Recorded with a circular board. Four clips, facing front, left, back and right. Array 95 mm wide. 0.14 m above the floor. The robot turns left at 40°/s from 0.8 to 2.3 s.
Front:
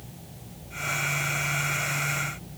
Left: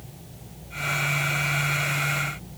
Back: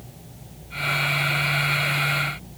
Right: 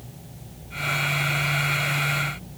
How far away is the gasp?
I don't hear a gasp.